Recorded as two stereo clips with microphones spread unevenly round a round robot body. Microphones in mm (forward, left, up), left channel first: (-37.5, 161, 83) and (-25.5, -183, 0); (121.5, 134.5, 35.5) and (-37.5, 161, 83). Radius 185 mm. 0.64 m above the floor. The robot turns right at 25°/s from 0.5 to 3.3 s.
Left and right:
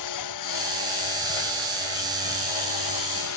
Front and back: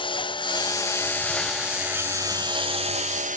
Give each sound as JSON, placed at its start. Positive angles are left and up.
{"t": 0.0, "sound": "a lawn mower", "azimuth_deg": 50}